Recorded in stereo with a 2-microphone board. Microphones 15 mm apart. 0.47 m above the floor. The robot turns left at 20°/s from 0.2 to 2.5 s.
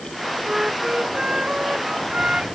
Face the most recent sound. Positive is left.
turn(degrees=-100)